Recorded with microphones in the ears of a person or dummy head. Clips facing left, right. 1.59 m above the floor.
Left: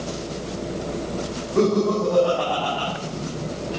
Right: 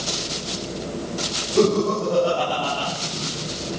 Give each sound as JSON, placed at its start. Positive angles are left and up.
{"t": 1.6, "sound": "laughter", "side_deg": -65, "distance_m": 7.5}